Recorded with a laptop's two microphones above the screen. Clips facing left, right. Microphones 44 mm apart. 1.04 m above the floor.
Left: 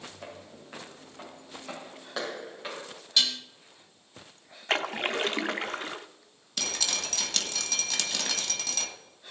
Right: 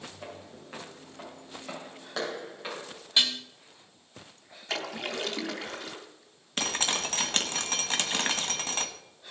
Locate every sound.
0.2 s footsteps: centre (ahead or behind), 4.5 m
3.2 s dishes clattering: 25° right (ahead or behind), 1.7 m
4.7 s a splash: 40° left (ahead or behind), 0.6 m
6.6 s dripping: 40° right (ahead or behind), 1.5 m